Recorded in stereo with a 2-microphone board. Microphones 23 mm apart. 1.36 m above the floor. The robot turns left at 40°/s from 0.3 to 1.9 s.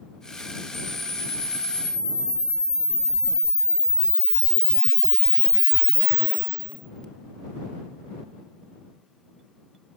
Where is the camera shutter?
150° left; by 7.1 s 105° left.